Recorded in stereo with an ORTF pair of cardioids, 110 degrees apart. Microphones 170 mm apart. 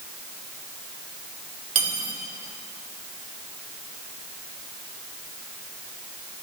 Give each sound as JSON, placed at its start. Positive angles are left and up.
{"t": 1.8, "sound": "cutlery clinking", "azimuth_deg": -40, "distance_m": 2.5}